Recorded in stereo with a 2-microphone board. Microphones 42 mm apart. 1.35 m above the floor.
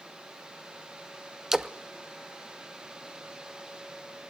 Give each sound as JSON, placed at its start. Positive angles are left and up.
{"t": 1.5, "sound": "a splash", "side_deg": -10, "distance_m": 0.7}